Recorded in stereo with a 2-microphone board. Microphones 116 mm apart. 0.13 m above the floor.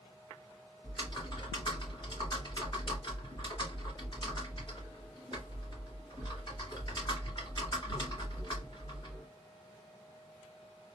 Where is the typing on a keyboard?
45° left (ahead or behind), 1.9 m.